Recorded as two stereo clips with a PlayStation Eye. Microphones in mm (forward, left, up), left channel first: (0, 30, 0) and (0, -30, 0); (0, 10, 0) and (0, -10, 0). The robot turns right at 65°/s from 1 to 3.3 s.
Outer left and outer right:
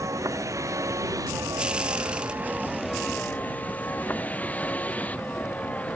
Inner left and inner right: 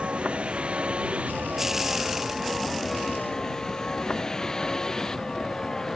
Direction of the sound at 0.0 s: 65° right (ahead or behind).